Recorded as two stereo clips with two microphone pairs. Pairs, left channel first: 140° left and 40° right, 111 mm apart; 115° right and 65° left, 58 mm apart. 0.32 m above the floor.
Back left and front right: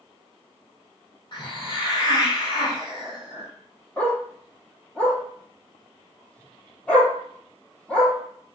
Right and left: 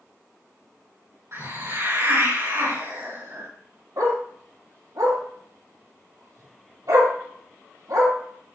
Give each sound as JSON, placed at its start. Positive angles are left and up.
{"t": 1.3, "sound": "a hiss", "azimuth_deg": 95, "distance_m": 4.5}
{"t": 4.0, "sound": "a dog barking", "azimuth_deg": 60, "distance_m": 3.0}